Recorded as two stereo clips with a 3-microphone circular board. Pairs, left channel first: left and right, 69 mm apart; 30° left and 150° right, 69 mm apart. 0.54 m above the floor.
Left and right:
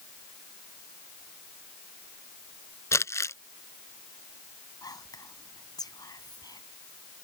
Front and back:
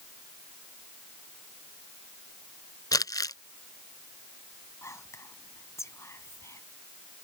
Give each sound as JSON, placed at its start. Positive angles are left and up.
{"t": 2.9, "sound": "crumpling", "azimuth_deg": 50}
{"t": 4.8, "sound": "whispering", "azimuth_deg": 75}